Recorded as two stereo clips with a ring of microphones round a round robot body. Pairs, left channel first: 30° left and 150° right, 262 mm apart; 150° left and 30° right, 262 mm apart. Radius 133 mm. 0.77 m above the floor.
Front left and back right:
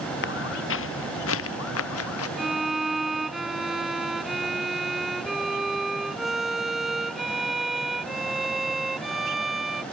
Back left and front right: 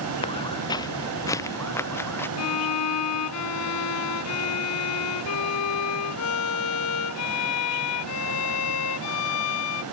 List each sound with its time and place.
0.2 s footsteps: 80° left; by 2.3 s 70° left
2.4 s a violin: 120° left